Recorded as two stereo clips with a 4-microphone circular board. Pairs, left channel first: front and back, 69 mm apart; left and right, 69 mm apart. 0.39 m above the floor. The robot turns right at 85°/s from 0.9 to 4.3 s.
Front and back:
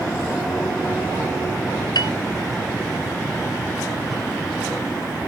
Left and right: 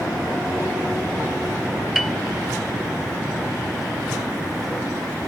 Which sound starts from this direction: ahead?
A piano, at 1.9 s.